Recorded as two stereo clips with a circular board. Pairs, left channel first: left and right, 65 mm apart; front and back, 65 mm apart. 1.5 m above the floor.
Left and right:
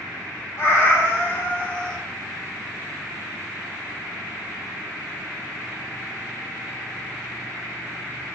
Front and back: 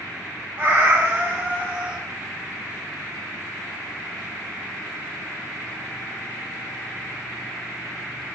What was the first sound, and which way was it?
A cat meowing, 125° left.